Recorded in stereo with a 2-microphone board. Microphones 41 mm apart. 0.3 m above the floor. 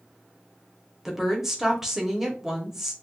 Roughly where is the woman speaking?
Centre.